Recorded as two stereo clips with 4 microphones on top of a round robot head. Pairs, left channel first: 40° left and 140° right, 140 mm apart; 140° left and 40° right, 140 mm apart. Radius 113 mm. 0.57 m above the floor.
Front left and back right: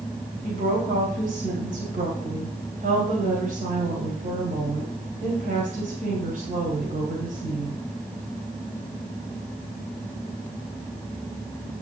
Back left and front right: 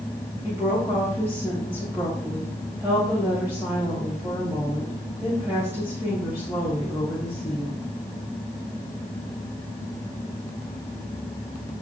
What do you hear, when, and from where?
0.4 s a woman speaking: 115° right, 3.5 m